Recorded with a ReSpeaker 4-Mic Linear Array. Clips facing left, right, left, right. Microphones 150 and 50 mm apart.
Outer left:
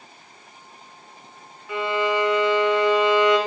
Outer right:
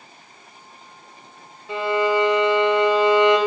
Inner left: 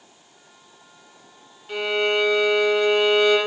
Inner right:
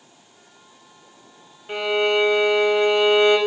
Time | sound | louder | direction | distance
1.7 | a violin | outer right 3 dB, inner right 2 dB | 30° right (ahead or behind) | 0.5 m